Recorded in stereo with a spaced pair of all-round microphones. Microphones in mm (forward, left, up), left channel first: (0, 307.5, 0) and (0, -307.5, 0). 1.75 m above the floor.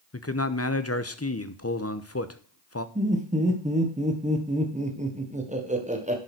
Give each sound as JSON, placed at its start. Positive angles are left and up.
{"t": 0.1, "sound": "a man speaking", "side_deg": 25, "distance_m": 0.9}
{"t": 3.0, "sound": "laughter", "side_deg": -10, "distance_m": 1.6}